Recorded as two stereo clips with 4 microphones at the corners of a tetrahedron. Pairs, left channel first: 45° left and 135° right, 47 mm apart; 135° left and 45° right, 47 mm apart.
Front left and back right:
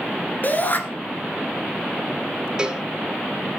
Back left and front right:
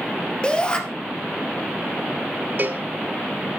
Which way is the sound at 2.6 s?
70° right.